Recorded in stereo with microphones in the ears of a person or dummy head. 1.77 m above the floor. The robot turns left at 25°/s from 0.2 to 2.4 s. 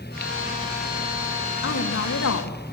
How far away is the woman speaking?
About 3.5 m.